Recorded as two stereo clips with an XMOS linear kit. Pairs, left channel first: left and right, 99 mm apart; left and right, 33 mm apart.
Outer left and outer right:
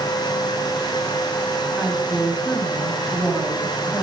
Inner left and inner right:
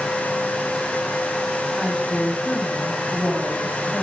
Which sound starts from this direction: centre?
A woman speaking, at 1.8 s.